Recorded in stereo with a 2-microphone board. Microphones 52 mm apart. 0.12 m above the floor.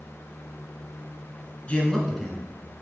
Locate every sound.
1.7 s a man speaking: 25° left (ahead or behind), 1.4 m; by 2.8 s 25° right (ahead or behind), 1.6 m